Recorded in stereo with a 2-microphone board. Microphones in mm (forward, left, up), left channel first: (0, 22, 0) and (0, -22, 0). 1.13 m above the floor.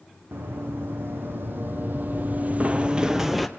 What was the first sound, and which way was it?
Running footsteps, 60° right (ahead or behind).